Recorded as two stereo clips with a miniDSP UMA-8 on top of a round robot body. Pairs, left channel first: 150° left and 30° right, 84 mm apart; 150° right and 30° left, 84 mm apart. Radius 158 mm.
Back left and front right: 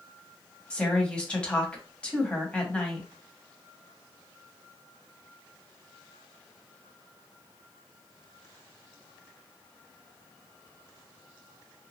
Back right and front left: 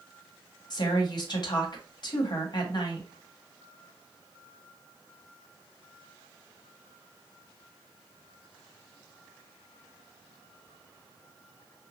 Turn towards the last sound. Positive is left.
turn(degrees=-135)